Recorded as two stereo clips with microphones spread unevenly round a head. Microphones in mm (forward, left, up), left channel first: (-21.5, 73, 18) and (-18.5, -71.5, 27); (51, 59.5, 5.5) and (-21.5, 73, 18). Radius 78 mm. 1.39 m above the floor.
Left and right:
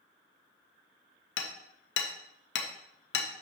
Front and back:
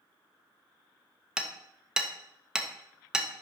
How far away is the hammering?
About 1.2 m.